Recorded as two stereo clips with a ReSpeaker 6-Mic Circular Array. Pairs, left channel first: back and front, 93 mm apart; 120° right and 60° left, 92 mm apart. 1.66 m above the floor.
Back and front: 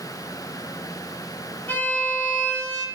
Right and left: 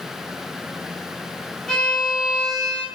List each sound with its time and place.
1.7 s a violin: 165° left, 0.7 m